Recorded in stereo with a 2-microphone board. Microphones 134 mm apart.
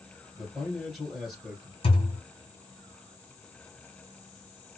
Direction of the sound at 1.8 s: 45° left (ahead or behind).